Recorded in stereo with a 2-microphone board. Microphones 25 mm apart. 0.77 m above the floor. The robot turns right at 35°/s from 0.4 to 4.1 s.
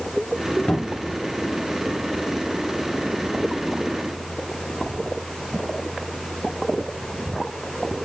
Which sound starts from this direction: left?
A cupboard door, at 0.7 s.